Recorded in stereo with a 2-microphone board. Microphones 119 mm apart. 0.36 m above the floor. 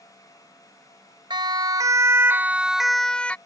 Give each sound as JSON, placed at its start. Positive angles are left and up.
{"t": 1.3, "sound": "a siren", "side_deg": -40}